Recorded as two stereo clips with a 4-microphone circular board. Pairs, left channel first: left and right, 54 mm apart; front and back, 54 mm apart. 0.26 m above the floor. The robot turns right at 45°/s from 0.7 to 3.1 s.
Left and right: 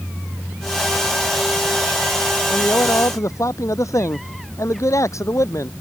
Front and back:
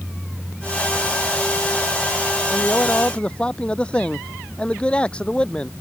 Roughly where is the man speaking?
Ahead left.